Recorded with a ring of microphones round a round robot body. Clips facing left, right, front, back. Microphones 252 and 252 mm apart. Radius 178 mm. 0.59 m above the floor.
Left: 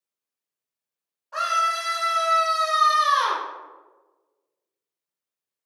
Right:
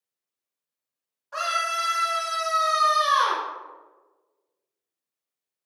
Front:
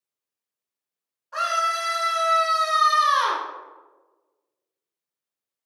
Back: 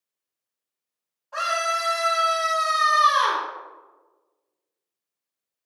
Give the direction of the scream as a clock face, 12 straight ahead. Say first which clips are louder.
Left 1 dB, back 2 dB; 1 o'clock.